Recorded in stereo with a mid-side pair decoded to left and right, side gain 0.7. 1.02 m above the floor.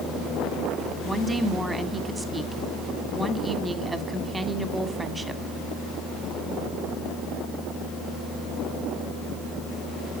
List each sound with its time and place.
1.0 s a woman speaking: 15° right, 2.0 m